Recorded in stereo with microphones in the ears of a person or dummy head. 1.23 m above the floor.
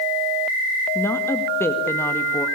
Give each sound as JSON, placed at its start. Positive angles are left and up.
{"t": 0.9, "sound": "a woman speaking", "side_deg": 15, "distance_m": 1.6}